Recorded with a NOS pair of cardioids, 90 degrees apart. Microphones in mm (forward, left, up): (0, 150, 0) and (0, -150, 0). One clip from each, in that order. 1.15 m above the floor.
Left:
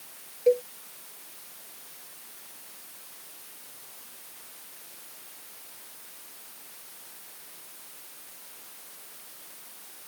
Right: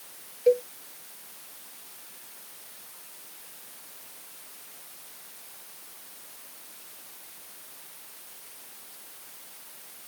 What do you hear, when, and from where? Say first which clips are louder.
0.5 s a cowbell: right 1 dB; 5° right